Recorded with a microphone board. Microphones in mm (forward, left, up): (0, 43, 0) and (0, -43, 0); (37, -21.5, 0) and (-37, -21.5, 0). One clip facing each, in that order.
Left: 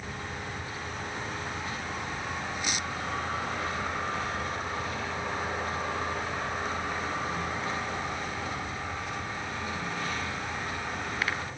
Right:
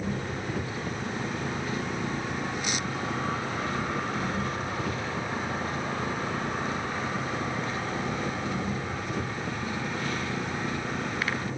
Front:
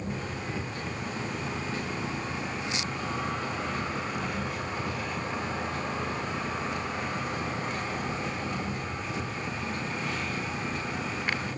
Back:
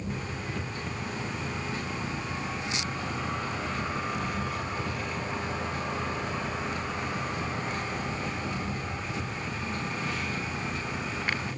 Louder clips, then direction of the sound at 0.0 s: Right 6 dB, front 1 dB; 80° right.